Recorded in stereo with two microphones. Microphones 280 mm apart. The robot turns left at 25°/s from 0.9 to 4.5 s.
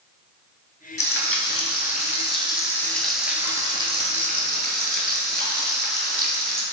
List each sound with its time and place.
1.0 s frying: 55° left, 0.7 m; by 6.6 s 35° right, 0.7 m